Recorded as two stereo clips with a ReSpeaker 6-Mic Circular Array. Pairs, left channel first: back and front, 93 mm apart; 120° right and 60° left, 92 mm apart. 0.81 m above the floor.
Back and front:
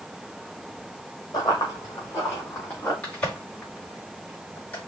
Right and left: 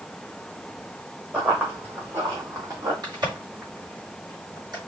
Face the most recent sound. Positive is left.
turn(degrees=105)